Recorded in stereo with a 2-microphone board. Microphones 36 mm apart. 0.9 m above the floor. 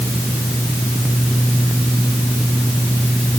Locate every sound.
Only background noise.